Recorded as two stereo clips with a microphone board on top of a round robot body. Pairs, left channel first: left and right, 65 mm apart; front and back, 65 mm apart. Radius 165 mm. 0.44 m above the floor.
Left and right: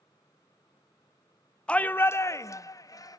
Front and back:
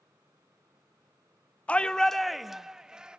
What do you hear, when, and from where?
1.7 s a shout: 35° left, 0.7 m; by 3.2 s 100° left, 1.3 m